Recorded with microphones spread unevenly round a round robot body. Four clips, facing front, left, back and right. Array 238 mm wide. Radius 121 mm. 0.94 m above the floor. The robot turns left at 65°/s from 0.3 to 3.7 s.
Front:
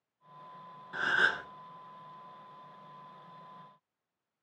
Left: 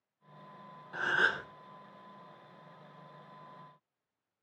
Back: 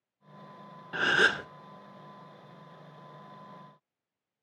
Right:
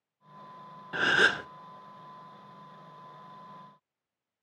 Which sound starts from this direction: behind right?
A gasp, at 0.9 s.